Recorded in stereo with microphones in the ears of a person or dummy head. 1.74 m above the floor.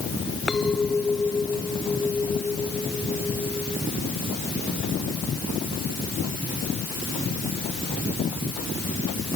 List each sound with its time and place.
0.5 s a clink: 5° left (ahead or behind)